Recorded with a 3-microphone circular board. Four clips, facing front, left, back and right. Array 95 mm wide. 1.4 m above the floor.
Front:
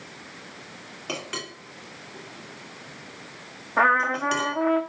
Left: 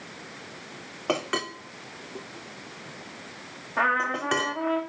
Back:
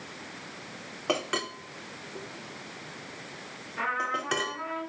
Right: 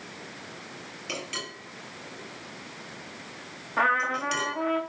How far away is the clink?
About 3 m.